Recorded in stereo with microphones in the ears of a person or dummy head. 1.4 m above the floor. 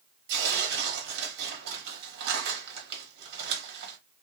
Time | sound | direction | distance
0.3 | tearing paper | 65° right (ahead or behind) | 1.0 m